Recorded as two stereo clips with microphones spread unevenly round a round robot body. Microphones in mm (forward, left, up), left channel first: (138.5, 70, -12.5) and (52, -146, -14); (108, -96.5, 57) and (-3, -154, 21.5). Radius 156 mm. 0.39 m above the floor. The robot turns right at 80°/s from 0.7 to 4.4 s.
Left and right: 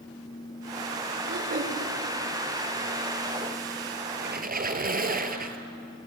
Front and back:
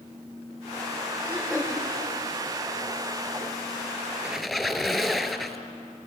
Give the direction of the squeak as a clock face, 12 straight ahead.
2 o'clock.